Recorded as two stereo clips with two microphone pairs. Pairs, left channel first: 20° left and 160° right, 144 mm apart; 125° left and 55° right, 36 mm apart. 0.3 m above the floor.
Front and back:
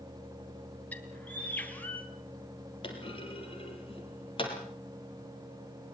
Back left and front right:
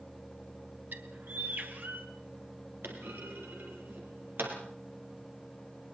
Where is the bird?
60° right, 3 m.